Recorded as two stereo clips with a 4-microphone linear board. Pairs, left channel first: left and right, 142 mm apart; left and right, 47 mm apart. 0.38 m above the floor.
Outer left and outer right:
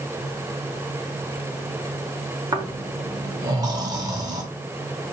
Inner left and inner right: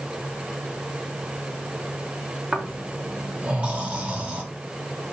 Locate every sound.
2.5 s snoring: 25° right (ahead or behind), 0.9 m